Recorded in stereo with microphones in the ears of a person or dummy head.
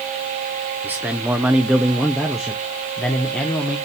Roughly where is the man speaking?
Centre.